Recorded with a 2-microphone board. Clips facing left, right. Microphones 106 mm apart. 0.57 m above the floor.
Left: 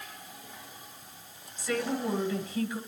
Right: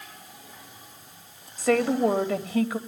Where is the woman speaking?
70° right (ahead or behind), 3 m.